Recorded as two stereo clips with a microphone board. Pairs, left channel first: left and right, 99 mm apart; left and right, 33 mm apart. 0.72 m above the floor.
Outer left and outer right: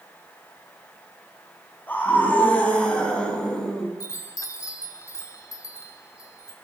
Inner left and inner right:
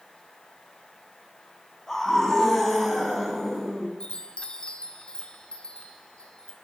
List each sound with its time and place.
1.9 s a scream: 20° left (ahead or behind), 7 m; by 3.9 s 10° left (ahead or behind), 7.5 m
4.0 s a chime: 35° left (ahead or behind), 2 m